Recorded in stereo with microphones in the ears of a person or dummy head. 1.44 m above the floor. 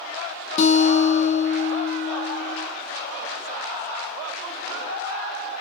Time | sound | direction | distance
0.6 | a guitar | 40° left (ahead or behind) | 0.5 m